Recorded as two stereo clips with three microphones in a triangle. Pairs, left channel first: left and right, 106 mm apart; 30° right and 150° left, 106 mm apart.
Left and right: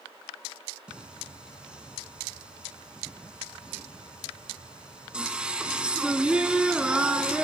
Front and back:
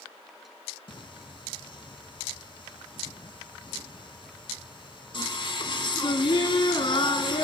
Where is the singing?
10° right, 0.7 m.